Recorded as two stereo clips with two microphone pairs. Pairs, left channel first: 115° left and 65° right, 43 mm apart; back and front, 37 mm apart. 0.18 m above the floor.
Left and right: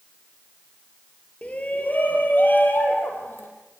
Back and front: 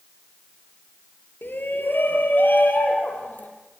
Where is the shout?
170° left, 4 m; by 3.5 s 145° left, 6.5 m.